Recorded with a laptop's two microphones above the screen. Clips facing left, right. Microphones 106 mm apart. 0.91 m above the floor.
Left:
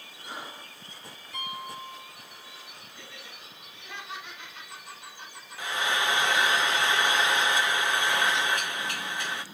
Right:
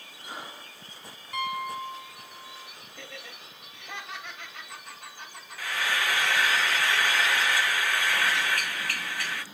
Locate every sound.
1.3 s a piano: 75° right (ahead or behind), 6.5 m
3.0 s laughter: 60° right (ahead or behind), 5.5 m
5.6 s frying: 20° left (ahead or behind), 0.8 m